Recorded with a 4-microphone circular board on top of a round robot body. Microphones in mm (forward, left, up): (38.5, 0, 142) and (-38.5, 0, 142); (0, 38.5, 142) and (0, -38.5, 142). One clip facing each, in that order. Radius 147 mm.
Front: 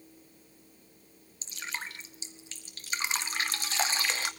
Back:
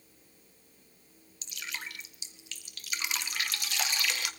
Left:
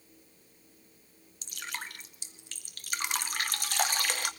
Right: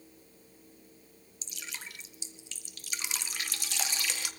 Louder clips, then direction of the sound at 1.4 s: Front 2 dB, left 5 dB; 55° left.